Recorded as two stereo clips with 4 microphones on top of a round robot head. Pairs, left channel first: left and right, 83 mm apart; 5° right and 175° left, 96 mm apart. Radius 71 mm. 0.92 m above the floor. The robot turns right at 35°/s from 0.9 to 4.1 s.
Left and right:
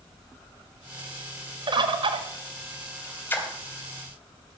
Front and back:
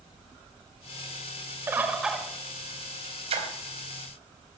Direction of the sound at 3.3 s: 155° left.